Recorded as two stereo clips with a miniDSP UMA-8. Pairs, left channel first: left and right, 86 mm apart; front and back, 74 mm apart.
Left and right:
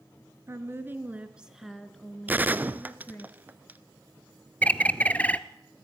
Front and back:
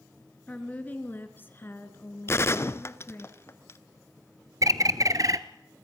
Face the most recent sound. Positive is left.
turn(degrees=160)